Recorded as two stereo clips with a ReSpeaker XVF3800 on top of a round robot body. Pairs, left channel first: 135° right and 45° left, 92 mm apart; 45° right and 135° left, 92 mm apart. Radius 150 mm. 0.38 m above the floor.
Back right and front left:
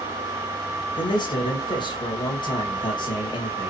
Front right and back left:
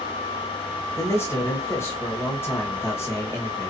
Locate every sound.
1.0 s a man speaking: 105° right, 2.5 m